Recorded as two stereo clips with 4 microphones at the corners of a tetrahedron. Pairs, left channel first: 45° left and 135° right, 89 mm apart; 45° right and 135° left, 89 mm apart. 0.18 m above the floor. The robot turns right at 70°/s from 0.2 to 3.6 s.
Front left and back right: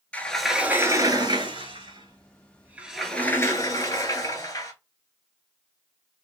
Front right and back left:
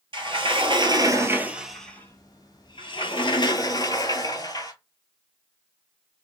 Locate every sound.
0.1 s a sliding door: 120° left, 0.5 m; by 4.7 s 5° right, 0.5 m